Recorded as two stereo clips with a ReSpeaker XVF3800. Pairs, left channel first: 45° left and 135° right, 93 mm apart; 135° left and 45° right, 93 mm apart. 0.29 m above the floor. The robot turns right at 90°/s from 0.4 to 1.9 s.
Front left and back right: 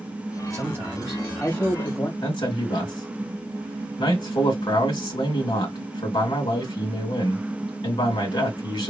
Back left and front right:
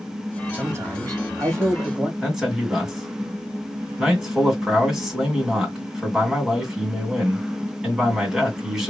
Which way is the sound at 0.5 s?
105° right.